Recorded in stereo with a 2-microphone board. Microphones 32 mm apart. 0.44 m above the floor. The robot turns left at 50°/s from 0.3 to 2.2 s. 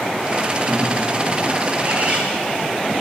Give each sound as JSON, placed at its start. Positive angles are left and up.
{"t": 0.7, "sound": "a bird", "azimuth_deg": -65, "distance_m": 6.0}